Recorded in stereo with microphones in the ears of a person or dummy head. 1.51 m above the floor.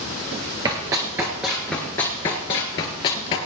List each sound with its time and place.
0.7 s running footsteps: 15° right (ahead or behind), 1.7 m; by 3.4 s 30° left (ahead or behind), 1.8 m